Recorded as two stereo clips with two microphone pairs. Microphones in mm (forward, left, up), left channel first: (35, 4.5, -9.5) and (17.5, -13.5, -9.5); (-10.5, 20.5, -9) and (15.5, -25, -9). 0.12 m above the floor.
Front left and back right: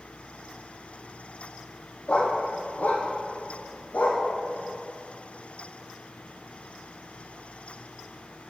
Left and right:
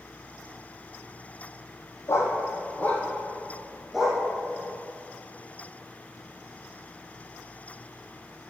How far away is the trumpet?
I don't hear a trumpet.